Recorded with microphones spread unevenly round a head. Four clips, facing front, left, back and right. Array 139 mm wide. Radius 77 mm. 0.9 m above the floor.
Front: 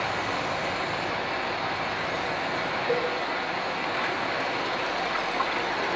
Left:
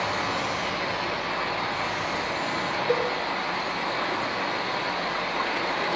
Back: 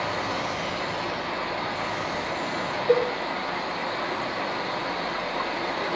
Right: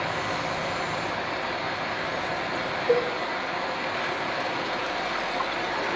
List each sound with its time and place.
0.0 s running water: 160° left, 3 m
2.9 s a cowbell: 150° right, 0.7 m